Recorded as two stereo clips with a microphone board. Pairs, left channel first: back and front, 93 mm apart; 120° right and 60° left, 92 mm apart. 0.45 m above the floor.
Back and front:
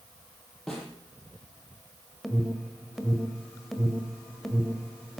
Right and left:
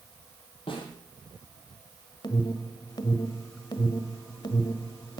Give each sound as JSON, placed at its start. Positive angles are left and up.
{"t": 0.7, "sound": "a snare drum", "azimuth_deg": -95, "distance_m": 7.0}
{"t": 2.2, "sound": "an alarm", "azimuth_deg": -95, "distance_m": 1.6}